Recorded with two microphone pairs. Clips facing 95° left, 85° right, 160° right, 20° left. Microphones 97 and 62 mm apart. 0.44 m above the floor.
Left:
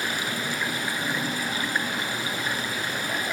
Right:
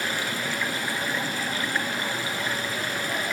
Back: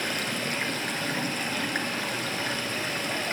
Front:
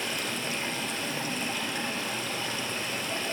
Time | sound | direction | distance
0.0 | running water | 170° left | 1.4 m